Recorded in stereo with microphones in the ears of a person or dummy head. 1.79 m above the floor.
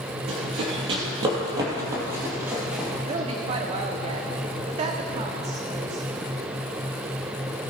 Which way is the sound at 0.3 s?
40° right (ahead or behind).